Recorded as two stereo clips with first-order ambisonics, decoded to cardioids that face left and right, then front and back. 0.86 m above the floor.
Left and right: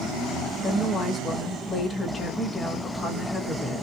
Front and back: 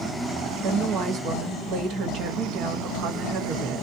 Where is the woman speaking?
175° left, 1.2 m.